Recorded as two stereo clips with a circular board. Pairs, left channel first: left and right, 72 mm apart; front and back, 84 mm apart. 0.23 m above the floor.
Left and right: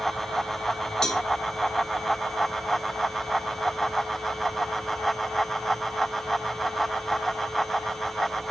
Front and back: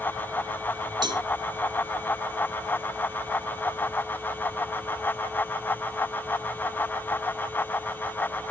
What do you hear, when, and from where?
1.0 s a cowbell: 170° left, 0.8 m